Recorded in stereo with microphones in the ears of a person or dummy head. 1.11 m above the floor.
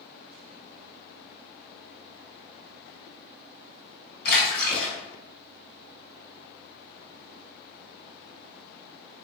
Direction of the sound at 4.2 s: 55° left (ahead or behind).